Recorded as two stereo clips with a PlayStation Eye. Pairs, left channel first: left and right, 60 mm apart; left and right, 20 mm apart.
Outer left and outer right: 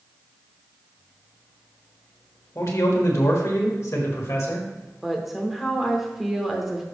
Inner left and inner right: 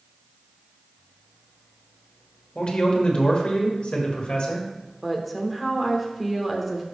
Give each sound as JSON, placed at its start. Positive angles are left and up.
{"t": 2.5, "sound": "a man speaking", "side_deg": 55, "distance_m": 1.5}
{"t": 5.0, "sound": "a woman speaking", "side_deg": -5, "distance_m": 1.0}